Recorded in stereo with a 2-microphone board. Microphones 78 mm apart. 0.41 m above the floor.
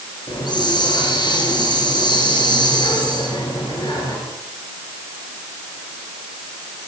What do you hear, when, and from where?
0.3 s a hiss: 70° left (ahead or behind), 9 m